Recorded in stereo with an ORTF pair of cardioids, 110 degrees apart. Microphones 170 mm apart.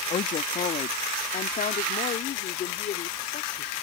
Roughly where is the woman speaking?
Ahead left.